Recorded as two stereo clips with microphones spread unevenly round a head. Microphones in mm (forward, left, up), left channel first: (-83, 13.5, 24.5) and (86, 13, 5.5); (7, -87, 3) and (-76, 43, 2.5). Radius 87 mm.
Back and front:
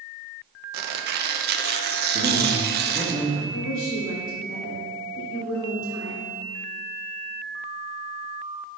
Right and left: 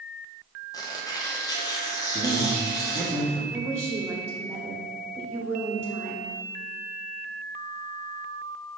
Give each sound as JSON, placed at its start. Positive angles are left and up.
{"t": 0.7, "sound": "tearing paper", "azimuth_deg": 10, "distance_m": 0.6}
{"t": 2.1, "sound": "a man speaking", "azimuth_deg": 20, "distance_m": 1.9}
{"t": 3.5, "sound": "a woman speaking", "azimuth_deg": -160, "distance_m": 0.9}